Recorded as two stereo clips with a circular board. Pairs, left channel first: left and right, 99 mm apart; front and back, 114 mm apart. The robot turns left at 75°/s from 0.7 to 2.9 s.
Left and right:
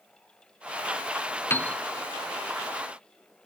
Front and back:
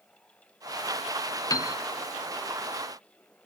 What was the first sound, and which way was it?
A piano, 35° left.